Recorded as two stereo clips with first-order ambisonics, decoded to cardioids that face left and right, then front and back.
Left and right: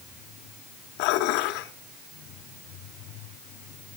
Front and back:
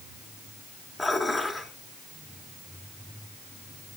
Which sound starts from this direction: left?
Dishes clattering, at 1.0 s.